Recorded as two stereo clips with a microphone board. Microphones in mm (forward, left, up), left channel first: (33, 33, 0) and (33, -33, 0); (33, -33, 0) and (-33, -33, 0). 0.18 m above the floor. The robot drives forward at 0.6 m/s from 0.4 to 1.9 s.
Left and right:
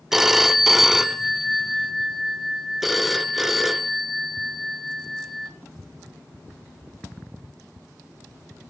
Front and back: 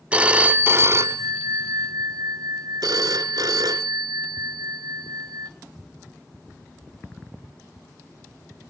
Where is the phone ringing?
165° right, 0.6 m; by 5.5 s 175° right, 1.2 m.